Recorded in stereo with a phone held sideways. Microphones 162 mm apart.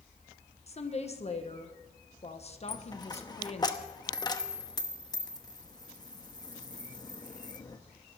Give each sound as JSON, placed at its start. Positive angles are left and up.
{"t": 0.7, "sound": "a woman speaking", "side_deg": 40, "distance_m": 1.3}
{"t": 2.7, "sound": "a dropped coin", "side_deg": 25, "distance_m": 0.9}